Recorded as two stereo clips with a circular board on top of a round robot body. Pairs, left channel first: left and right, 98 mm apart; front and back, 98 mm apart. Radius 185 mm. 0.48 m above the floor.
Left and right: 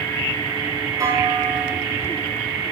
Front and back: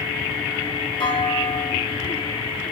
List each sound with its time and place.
1.0 s a clunk: 35° right, 3 m